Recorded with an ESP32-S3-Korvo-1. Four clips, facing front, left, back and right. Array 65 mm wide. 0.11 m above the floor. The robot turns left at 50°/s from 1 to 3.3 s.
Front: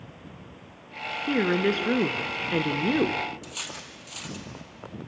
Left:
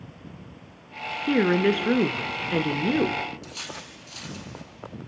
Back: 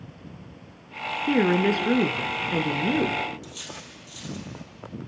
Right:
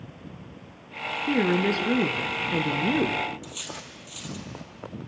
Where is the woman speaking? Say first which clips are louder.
Left 3 dB, back 3 dB; 110° left, 1.2 m; by 3.2 s 10° left, 1.2 m.